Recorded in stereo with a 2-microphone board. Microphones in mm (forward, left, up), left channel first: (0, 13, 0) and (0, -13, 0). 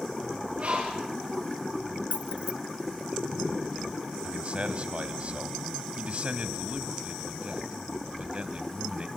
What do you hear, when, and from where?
0.6 s a bird: 45° right (ahead or behind), 8 m
2.1 s keys jangling: 50° right (ahead or behind), 1.1 m
4.2 s a man speaking: 45° right (ahead or behind), 2.5 m